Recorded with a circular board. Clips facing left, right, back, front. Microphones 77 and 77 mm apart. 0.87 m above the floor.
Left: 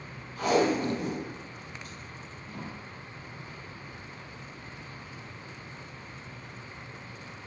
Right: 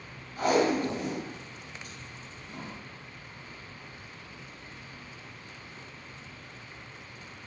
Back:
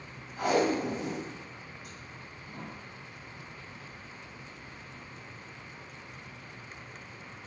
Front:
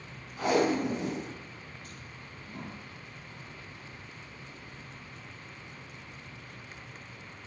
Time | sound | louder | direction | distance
0.4 | tape being pulled | even, front 1 dB | 110° right | 1.3 m